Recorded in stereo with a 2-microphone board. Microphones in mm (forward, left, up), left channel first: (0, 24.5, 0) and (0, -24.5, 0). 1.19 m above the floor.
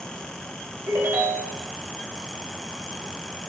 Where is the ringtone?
60° right (ahead or behind), 4.5 m.